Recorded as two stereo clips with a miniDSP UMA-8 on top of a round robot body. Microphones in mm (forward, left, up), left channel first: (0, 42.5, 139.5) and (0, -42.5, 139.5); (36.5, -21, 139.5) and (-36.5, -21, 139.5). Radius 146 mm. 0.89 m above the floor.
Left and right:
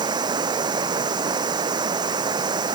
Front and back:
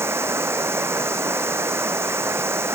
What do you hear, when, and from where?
0.0 s running water: 125° right